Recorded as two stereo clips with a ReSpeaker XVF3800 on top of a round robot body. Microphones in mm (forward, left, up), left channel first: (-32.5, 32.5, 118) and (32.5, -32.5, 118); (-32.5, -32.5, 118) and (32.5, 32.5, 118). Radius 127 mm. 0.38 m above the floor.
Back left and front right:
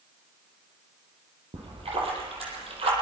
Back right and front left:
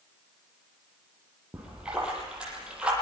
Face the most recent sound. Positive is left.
turn(degrees=-35)